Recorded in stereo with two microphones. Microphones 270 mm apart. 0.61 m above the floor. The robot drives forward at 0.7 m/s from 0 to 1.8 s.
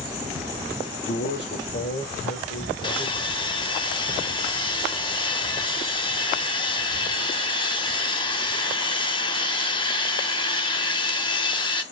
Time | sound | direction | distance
0.9 | a man speaking | 50° left (ahead or behind) | 1.2 m
2.8 | sawing | 20° left (ahead or behind) | 0.7 m